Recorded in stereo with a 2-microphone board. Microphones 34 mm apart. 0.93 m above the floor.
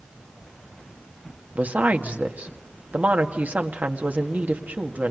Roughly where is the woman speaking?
Right.